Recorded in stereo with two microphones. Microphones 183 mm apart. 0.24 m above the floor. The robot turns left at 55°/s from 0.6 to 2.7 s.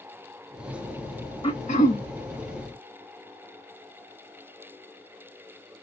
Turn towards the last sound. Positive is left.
turn(degrees=70)